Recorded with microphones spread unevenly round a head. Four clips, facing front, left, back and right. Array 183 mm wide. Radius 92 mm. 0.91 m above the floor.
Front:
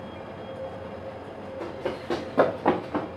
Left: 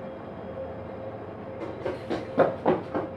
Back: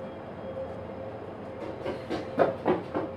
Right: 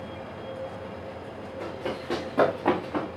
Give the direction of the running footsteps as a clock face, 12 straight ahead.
12 o'clock.